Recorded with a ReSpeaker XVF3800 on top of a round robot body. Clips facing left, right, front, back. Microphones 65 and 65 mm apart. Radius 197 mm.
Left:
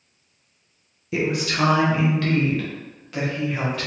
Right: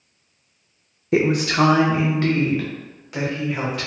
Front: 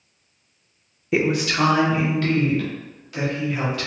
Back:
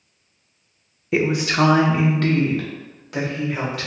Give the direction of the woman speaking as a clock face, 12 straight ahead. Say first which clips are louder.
Right 5 dB, back 1 dB; 3 o'clock.